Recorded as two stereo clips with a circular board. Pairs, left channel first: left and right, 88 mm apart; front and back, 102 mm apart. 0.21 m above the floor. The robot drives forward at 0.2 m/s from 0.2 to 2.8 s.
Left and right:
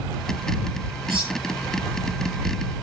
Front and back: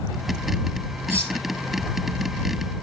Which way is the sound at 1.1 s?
110° right.